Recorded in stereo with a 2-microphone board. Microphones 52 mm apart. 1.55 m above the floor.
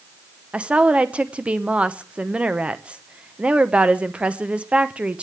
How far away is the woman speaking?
About 0.8 m.